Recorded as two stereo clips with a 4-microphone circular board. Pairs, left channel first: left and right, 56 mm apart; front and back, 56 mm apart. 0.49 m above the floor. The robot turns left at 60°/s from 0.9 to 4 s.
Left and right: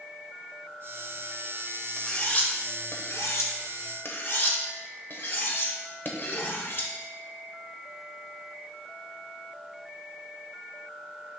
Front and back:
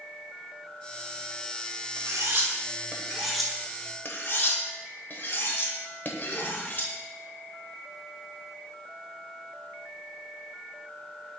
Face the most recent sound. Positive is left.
turn(degrees=50)